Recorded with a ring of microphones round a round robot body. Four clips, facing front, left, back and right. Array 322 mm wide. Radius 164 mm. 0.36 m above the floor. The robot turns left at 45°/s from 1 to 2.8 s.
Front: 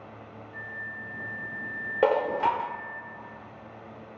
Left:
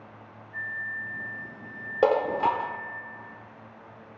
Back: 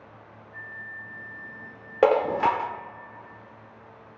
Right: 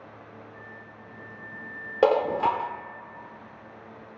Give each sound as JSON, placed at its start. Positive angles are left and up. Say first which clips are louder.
{"t": 0.5, "sound": "a flute", "louder": "left 9 dB, front 1 dB", "azimuth_deg": 95, "distance_m": 1.3}
{"t": 2.0, "sound": "dishes clattering", "louder": "right 1 dB, back 3 dB", "azimuth_deg": -160, "distance_m": 0.5}